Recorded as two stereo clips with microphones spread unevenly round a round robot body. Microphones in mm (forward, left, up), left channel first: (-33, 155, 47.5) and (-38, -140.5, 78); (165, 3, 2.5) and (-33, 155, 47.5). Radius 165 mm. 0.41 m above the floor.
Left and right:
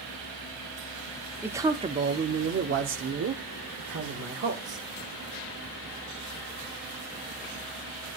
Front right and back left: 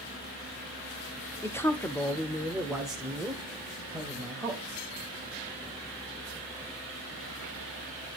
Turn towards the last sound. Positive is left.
turn(degrees=-130)